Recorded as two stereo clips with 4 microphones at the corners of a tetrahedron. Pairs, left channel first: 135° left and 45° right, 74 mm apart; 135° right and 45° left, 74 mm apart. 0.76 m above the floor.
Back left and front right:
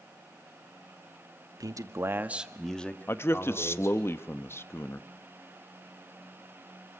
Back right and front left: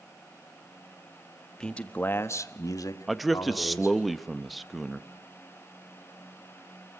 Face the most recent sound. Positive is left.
turn(degrees=135)